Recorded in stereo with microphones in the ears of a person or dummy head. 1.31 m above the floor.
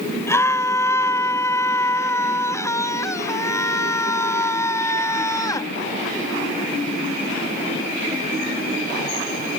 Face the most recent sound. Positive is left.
turn(degrees=20)  # may be behind; listen again after turning